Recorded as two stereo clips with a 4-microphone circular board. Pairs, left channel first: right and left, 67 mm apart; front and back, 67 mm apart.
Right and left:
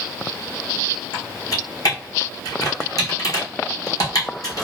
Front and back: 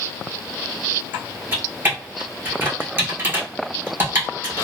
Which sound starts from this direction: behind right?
Typing on a keyboard, at 1.1 s.